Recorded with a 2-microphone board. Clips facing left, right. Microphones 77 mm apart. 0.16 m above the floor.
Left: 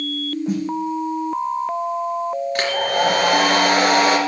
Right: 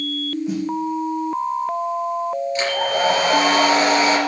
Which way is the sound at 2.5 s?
55° left (ahead or behind).